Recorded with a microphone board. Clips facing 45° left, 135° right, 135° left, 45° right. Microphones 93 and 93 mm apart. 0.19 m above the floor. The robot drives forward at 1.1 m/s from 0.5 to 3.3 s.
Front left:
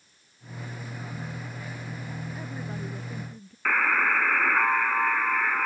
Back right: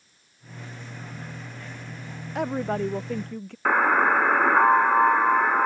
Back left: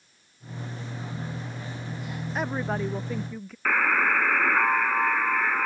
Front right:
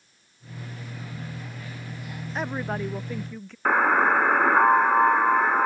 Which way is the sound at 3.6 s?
90° right.